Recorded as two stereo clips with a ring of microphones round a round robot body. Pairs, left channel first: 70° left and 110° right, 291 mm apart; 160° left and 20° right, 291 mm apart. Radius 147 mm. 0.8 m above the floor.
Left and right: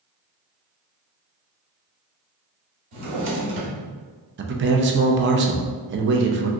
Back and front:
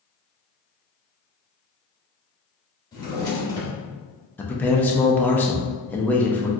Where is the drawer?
125° right, 1.4 m.